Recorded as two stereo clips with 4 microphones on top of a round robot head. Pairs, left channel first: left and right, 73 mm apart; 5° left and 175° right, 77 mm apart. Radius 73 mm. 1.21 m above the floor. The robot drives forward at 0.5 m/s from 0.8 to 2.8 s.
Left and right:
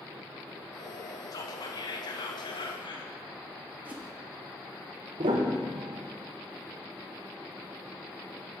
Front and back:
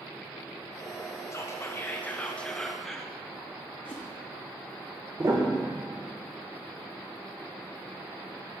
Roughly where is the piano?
Right.